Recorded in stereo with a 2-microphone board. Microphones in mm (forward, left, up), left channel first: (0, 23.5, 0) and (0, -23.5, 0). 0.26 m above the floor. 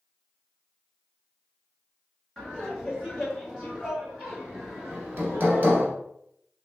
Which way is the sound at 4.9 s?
40° right (ahead or behind).